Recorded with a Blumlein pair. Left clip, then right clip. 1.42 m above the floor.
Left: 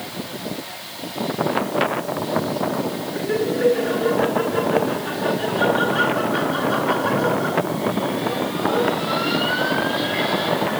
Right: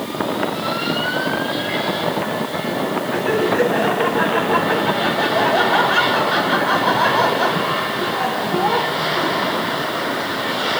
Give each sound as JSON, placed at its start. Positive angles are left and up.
{"t": 3.1, "sound": "laughter", "azimuth_deg": -50, "distance_m": 8.0}